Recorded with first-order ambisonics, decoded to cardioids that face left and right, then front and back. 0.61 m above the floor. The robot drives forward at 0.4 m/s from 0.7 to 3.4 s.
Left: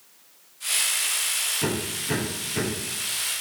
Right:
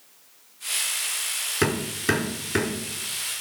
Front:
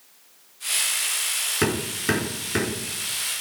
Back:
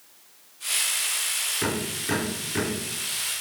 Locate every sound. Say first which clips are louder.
1.6 s hammering: right 4 dB, front 4 dB; 50° right, 6 m; by 2.8 s 55° right, 6 m